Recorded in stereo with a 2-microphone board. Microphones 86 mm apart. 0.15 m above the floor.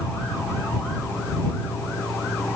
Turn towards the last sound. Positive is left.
No sound to turn to.